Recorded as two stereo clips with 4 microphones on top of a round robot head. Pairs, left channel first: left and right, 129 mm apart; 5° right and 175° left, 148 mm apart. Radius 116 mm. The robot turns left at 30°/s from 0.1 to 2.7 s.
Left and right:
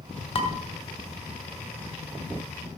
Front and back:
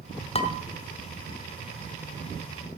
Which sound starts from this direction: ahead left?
Dishes clattering, at 0.3 s.